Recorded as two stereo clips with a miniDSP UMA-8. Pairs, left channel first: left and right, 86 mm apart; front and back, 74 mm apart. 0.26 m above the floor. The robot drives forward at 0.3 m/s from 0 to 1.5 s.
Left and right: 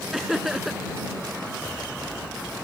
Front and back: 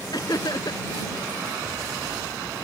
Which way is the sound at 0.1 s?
5° right.